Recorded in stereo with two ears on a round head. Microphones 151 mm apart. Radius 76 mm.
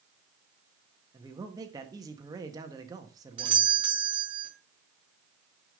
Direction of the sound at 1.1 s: 25° right (ahead or behind).